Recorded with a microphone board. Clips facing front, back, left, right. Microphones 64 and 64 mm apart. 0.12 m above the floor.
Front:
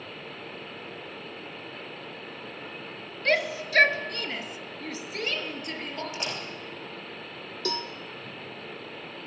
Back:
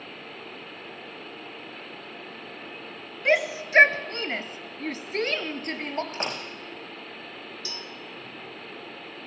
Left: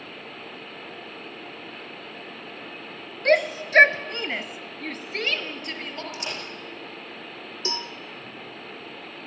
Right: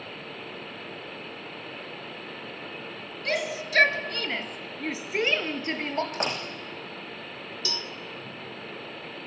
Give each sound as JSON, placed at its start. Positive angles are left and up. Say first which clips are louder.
{"t": 3.2, "sound": "a shout", "louder": "back 3 dB, left 9 dB", "azimuth_deg": 110, "distance_m": 2.0}
{"t": 6.1, "sound": "a door slam", "louder": "back 2 dB, right 4 dB", "azimuth_deg": -130, "distance_m": 6.0}
{"t": 7.7, "sound": "a cowbell", "louder": "front 8 dB, left 5 dB", "azimuth_deg": 30, "distance_m": 1.3}